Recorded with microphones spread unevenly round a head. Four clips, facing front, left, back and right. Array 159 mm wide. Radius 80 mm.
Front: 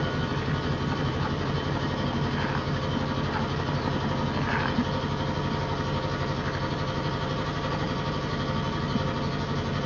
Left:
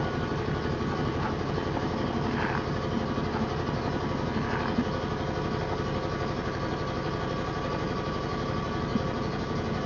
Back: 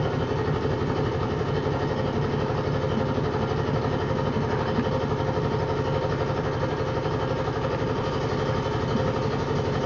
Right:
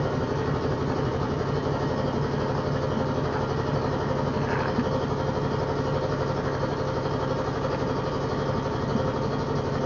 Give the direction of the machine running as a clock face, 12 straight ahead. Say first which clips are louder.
Right 4 dB, back 3 dB; 4 o'clock.